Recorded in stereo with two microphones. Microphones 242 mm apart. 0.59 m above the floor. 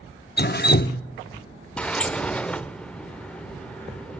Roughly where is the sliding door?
Centre.